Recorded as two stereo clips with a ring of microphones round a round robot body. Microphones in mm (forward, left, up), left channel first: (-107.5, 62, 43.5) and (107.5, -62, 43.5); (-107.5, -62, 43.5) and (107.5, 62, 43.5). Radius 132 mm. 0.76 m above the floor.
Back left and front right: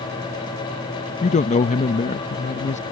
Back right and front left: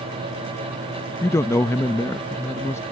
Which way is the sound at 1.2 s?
140° left.